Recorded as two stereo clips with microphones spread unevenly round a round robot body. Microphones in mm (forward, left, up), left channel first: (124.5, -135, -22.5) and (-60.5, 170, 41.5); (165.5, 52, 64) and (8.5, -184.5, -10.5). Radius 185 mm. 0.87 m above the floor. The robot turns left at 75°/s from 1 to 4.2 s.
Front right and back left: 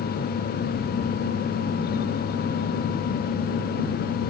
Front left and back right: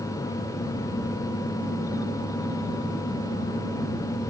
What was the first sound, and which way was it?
Only background noise.